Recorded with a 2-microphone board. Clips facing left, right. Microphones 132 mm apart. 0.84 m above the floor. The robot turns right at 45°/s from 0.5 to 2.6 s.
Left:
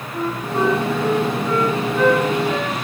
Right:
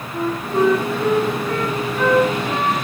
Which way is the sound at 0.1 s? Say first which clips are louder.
Right 2 dB; straight behind.